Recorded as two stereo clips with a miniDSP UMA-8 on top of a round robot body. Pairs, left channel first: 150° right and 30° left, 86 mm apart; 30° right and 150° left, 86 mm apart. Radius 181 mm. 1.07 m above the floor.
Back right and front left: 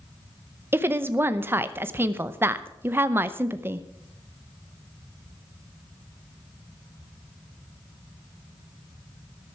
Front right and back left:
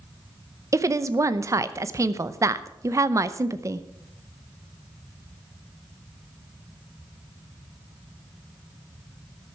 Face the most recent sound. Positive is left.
turn(degrees=95)